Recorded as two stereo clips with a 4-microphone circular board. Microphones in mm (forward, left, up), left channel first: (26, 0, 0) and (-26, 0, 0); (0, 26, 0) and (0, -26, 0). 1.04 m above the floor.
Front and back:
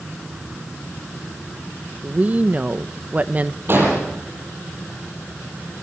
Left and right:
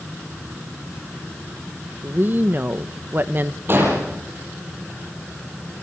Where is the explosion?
135° right, 8.5 m.